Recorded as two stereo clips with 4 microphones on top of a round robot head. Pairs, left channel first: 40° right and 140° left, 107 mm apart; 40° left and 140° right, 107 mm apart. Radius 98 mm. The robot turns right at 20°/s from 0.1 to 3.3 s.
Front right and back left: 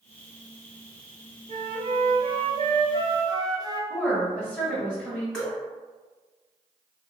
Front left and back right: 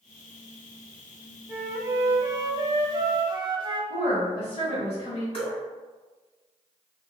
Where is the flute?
150° left, 0.6 m; by 3.8 s 175° right, 0.6 m.